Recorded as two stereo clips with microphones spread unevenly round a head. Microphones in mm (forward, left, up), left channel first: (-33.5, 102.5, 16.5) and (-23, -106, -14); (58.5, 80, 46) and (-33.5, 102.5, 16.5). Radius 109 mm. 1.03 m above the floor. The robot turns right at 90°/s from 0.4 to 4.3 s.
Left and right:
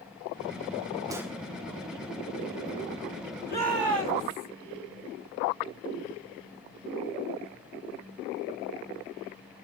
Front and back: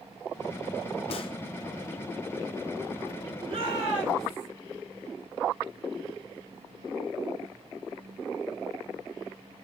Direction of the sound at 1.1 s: 10° right.